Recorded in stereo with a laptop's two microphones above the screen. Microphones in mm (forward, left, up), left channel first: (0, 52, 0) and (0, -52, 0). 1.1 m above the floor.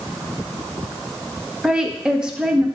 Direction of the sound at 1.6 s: 10° right (ahead or behind).